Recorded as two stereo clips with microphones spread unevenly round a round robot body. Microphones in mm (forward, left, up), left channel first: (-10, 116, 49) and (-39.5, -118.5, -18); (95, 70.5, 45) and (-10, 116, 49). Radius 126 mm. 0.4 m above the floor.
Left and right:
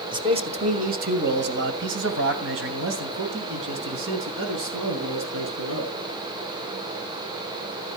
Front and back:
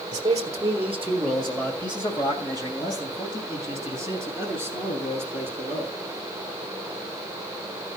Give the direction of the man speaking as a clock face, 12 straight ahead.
5 o'clock.